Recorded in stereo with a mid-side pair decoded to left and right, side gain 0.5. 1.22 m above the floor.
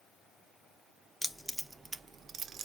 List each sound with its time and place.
1.2 s keys jangling: 15° left, 0.6 m; by 2.7 s 60° right, 0.6 m